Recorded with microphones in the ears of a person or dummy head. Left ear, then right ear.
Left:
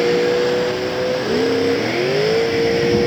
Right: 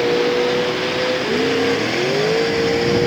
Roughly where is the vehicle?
Centre.